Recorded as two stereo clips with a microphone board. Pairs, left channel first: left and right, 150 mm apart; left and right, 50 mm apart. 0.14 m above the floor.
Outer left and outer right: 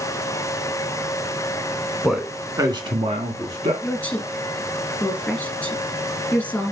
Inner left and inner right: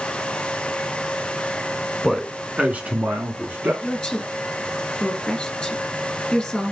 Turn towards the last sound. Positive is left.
turn(degrees=10)  # may be behind; listen again after turning